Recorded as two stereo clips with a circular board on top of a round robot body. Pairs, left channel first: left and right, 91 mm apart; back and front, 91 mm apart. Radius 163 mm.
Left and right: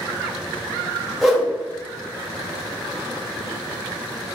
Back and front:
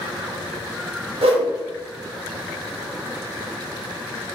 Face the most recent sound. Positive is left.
turn(degrees=0)